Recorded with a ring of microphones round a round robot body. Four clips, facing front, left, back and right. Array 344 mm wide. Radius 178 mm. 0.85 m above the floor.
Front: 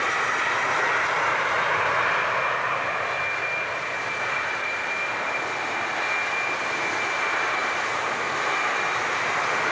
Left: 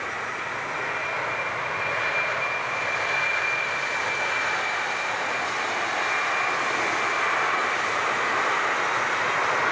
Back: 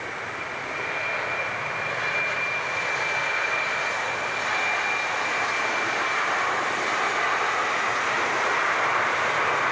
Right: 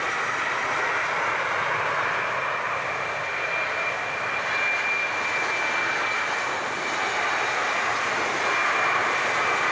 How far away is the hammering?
No hammering in this recording.